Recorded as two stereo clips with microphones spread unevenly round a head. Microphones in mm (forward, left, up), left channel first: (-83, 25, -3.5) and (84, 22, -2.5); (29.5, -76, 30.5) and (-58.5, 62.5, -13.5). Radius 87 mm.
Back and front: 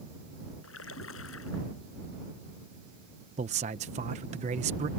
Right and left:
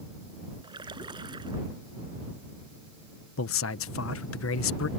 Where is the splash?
175° right.